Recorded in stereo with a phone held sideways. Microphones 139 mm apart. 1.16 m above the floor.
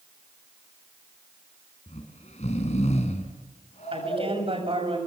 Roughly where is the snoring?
Left.